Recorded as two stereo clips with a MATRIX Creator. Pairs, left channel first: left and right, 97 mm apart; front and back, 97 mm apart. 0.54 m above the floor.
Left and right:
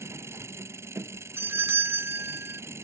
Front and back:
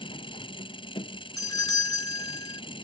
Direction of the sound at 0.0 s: 25° right.